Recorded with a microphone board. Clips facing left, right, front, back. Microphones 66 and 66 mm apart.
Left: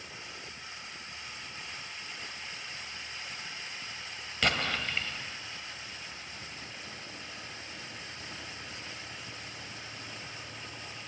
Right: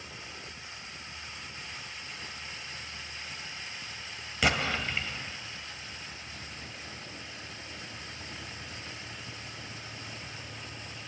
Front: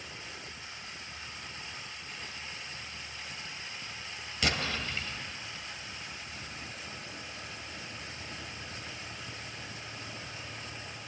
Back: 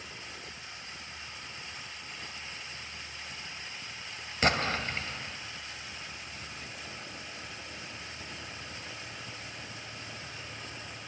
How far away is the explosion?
About 1.9 m.